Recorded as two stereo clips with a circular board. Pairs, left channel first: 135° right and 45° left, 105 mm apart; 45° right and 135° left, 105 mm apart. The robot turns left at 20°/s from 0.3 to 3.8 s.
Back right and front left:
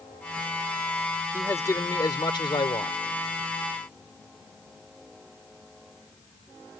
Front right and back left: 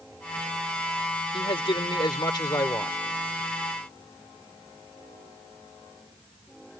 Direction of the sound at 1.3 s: 70° right.